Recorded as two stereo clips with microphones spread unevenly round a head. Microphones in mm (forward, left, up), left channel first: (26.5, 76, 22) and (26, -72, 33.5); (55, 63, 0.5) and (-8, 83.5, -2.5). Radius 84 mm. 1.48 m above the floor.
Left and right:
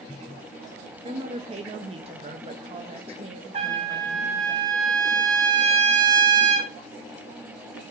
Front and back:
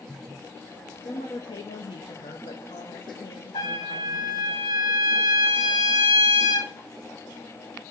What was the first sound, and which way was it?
A woman speaking, 40° right.